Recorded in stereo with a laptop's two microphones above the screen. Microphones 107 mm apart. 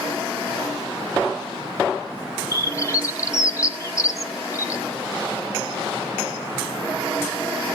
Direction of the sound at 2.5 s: 30° left (ahead or behind).